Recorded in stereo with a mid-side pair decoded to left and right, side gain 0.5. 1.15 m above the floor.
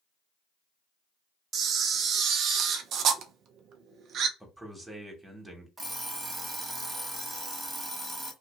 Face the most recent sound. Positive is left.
turn(degrees=-25)